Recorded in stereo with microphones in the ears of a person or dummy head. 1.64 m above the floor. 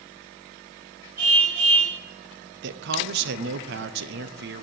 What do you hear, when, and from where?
1.2 s a car horn: 55° right (ahead or behind), 5 m
2.6 s a man speaking: 60° right (ahead or behind), 0.9 m